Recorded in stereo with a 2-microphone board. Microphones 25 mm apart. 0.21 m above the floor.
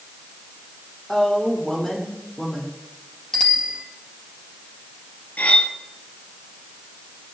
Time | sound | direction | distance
1.1 | a woman speaking | 20° left (ahead or behind) | 7.5 m
3.3 | a bicycle bell | 25° left (ahead or behind) | 3.5 m
5.4 | cutlery clinking | 75° left (ahead or behind) | 3 m